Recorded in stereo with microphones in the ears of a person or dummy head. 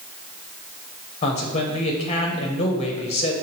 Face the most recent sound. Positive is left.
turn(degrees=35)  # may be behind; listen again after turning